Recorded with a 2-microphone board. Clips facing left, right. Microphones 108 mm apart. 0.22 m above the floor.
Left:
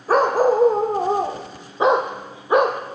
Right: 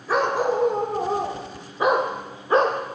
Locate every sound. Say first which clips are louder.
0.1 s a dog barking: left 5 dB; 45° left (ahead or behind), 3.5 m; by 2.8 s 10° left (ahead or behind), 2.5 m